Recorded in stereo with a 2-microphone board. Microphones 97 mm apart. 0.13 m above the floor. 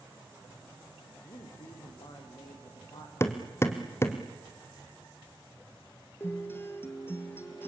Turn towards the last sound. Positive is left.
turn(degrees=25)  # may be behind; listen again after turning